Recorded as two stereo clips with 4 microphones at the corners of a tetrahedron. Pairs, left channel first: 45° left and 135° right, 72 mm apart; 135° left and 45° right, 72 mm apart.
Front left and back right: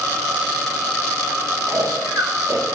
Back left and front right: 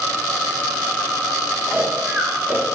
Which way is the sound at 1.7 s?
105° right.